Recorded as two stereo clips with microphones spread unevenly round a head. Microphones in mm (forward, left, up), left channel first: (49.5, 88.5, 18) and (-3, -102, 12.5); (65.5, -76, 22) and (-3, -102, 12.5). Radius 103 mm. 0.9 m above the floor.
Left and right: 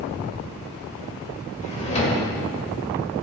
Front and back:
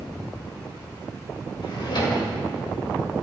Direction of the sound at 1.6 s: 15° left.